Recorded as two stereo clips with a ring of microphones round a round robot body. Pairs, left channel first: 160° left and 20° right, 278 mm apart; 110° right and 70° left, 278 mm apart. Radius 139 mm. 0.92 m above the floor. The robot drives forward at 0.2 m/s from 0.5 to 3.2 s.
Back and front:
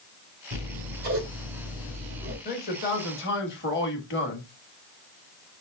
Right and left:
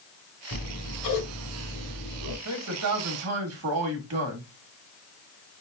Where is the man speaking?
100° left, 1.4 m; by 4.5 s 105° left, 1.5 m.